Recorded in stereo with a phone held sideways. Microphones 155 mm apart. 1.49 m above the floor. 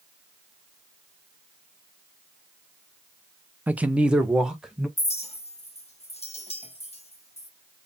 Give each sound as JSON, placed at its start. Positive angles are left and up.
{"t": 3.7, "sound": "a man speaking", "side_deg": -10, "distance_m": 0.9}
{"t": 5.0, "sound": "a clink", "side_deg": 40, "distance_m": 1.3}